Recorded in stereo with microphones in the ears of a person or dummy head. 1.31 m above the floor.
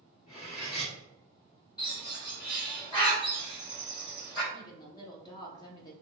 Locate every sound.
0.3 s cutlery clinking: 40° left (ahead or behind), 1.2 m
1.8 s a bird: 25° left (ahead or behind), 1.4 m
4.5 s a woman speaking: 30° left (ahead or behind), 0.5 m